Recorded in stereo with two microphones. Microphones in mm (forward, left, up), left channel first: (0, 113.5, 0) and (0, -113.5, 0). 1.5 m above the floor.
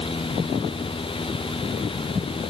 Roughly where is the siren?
No siren in this recording.